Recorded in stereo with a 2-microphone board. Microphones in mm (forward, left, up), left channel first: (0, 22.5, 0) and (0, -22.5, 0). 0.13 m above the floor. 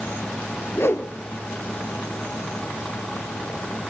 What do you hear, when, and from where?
0.7 s a whoosh: 60° left (ahead or behind), 1.4 m